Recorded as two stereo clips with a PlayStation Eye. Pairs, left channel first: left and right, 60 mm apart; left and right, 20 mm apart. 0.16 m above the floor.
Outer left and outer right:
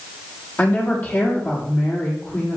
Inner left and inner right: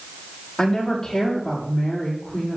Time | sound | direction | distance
0.6 | a woman speaking | 40° left (ahead or behind) | 6 m